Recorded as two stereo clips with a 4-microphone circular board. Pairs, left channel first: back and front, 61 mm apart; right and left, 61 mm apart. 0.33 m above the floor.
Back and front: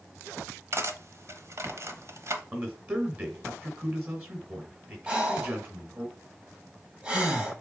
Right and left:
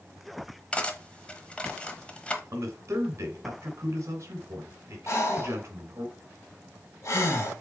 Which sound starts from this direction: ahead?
Cutlery clinking, at 0.7 s.